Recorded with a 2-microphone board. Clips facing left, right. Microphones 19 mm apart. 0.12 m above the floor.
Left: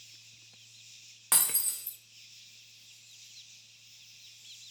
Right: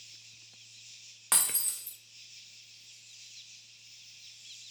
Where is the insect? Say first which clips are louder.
Right 2 dB; 25° right (ahead or behind), 1.2 m.